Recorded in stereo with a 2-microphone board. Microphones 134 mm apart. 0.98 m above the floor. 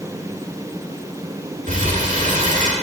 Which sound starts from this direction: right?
Crumpling, at 1.7 s.